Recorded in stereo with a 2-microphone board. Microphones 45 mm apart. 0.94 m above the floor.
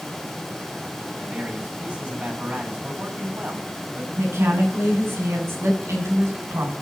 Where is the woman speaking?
85° right, 8.5 m.